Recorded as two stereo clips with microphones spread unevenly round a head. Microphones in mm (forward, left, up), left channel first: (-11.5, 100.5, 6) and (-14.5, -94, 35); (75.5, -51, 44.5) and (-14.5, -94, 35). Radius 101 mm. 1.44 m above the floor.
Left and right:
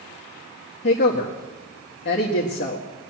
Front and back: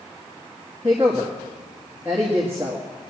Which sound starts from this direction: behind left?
A woman speaking, at 0.8 s.